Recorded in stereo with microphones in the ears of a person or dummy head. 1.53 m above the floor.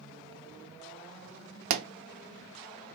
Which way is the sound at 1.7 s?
50° right (ahead or behind).